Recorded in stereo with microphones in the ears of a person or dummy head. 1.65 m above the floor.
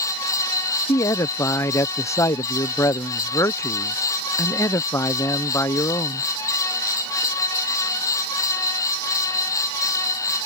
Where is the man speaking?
20° left (ahead or behind).